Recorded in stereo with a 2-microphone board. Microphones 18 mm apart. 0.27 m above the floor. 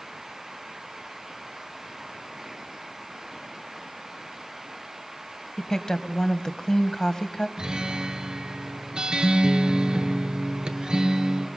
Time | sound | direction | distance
5.6 | a woman speaking | 35° left (ahead or behind) | 1.2 m
7.6 | a guitar | 45° right (ahead or behind) | 2.5 m